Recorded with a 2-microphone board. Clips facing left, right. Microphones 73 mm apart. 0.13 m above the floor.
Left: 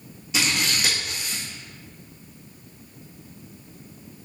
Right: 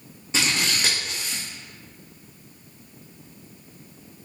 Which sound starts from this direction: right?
Scissors, at 0.3 s.